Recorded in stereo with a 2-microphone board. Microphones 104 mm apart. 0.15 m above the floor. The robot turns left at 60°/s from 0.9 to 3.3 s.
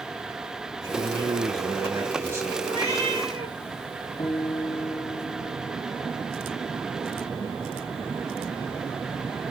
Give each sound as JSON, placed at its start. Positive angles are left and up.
{"t": 0.8, "sound": "a man speaking", "azimuth_deg": -55, "distance_m": 1.3}
{"t": 2.6, "sound": "a cat meowing", "azimuth_deg": -80, "distance_m": 6.5}
{"t": 4.2, "sound": "a guitar", "side_deg": 55, "distance_m": 5.0}